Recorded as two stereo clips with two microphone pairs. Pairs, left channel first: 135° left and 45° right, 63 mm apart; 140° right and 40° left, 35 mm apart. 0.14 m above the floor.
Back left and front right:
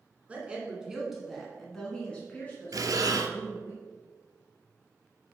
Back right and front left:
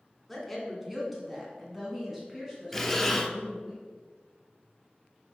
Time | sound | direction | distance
0.3 | a woman speaking | 50° right | 1.6 m
2.7 | breathing | 55° right | 0.7 m